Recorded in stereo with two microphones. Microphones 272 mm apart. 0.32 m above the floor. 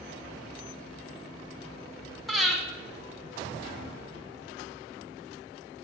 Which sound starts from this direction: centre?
Breathing, at 2.3 s.